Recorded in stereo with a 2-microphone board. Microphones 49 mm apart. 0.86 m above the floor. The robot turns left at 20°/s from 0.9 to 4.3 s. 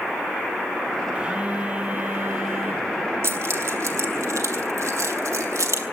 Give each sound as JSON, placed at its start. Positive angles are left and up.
{"t": 1.1, "sound": "a phone buzzing", "azimuth_deg": -25, "distance_m": 3.0}
{"t": 3.2, "sound": "keys jangling", "side_deg": -60, "distance_m": 2.5}